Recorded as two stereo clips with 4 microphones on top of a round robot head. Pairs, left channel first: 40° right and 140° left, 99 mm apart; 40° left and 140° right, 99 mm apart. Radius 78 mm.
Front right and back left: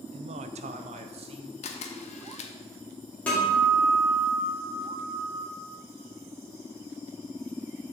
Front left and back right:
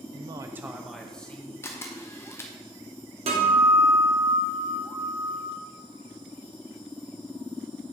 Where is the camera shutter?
25° right, 0.8 m.